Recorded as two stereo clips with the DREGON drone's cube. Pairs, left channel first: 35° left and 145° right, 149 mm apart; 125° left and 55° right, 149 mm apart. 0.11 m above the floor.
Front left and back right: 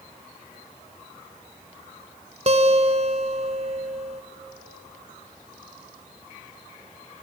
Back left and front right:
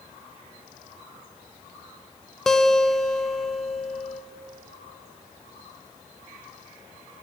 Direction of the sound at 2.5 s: 150° right.